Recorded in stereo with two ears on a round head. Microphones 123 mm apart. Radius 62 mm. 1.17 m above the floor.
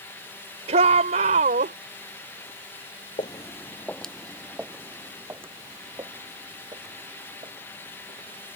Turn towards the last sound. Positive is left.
turn(degrees=-30)  # may be behind; listen again after turning